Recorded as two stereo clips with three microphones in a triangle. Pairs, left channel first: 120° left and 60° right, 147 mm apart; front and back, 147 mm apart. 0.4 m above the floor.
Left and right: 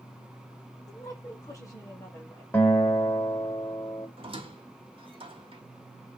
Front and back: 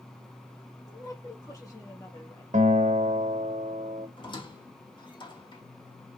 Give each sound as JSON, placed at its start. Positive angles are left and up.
{"t": 0.9, "sound": "a woman speaking", "azimuth_deg": 60, "distance_m": 2.0}
{"t": 2.5, "sound": "a guitar", "azimuth_deg": -170, "distance_m": 1.2}
{"t": 4.2, "sound": "a squeak", "azimuth_deg": -35, "distance_m": 1.1}